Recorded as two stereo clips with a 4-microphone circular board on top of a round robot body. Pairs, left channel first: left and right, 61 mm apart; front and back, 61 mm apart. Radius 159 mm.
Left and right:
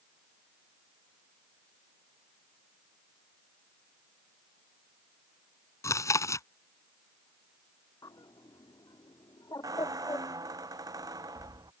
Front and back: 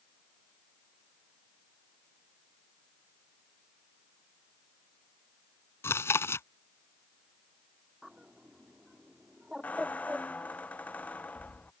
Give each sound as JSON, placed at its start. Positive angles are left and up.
{"t": 5.8, "sound": "chewing", "azimuth_deg": 50}
{"t": 8.0, "sound": "a bird", "azimuth_deg": 100}
{"t": 9.6, "sound": "a squeak", "azimuth_deg": -65}